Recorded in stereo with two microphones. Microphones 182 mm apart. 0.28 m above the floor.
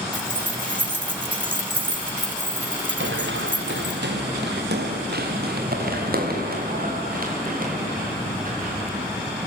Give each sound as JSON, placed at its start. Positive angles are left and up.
{"t": 0.1, "sound": "keys jangling", "side_deg": 70, "distance_m": 3.0}
{"t": 3.0, "sound": "running footsteps", "side_deg": -85, "distance_m": 1.9}